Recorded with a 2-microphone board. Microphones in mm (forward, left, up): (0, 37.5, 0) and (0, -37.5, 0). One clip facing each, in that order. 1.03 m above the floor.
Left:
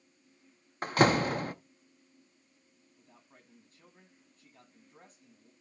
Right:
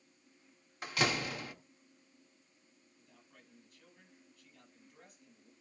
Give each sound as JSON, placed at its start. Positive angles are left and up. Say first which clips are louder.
{"t": 0.8, "sound": "a door slam", "louder": "left 9 dB", "side_deg": 45, "distance_m": 0.7}
{"t": 3.0, "sound": "a man speaking", "louder": "left 3 dB", "side_deg": 35, "distance_m": 8.0}